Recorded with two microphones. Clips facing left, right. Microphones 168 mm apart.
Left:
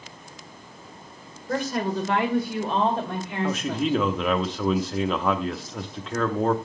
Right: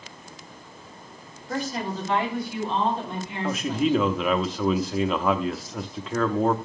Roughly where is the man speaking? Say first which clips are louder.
Right 2 dB; centre.